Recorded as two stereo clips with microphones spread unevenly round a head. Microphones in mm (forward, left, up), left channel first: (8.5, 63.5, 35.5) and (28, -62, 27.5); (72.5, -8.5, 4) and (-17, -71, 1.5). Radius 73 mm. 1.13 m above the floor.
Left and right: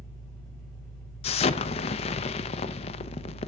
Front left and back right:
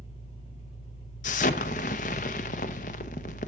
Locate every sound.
0.0 s an engine running: 15° left, 5.5 m
1.2 s an explosion: 60° left, 0.6 m